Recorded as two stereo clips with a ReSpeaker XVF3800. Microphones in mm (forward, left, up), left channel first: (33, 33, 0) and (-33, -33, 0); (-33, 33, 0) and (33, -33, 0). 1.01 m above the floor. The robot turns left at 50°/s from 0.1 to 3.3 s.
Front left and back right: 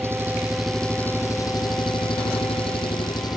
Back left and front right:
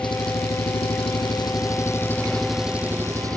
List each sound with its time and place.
0.0 s an engine running: 165° left; by 3.4 s 5° left